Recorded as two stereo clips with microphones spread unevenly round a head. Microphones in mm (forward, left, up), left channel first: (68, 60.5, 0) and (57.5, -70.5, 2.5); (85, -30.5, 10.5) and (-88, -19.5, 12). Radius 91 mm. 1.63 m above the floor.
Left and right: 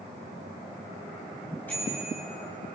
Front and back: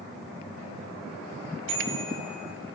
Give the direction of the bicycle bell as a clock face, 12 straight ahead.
6 o'clock.